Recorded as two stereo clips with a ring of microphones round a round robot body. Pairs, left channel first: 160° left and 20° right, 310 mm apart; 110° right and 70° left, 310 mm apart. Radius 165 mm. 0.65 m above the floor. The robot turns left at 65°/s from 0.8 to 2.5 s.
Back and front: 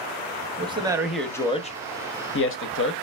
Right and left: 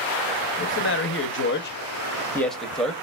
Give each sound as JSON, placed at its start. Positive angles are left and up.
{"t": 0.6, "sound": "a man speaking", "azimuth_deg": -90, "distance_m": 0.7}